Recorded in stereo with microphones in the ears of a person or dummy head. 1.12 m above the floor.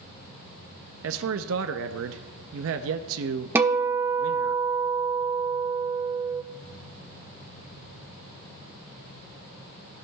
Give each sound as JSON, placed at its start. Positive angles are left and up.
{"t": 1.0, "sound": "a man speaking", "side_deg": -60, "distance_m": 0.5}
{"t": 3.5, "sound": "a guitar", "side_deg": -10, "distance_m": 0.6}